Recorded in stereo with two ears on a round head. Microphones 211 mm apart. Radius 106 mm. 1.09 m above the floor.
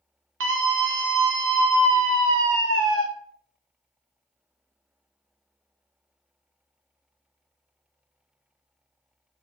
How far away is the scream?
About 1.7 m.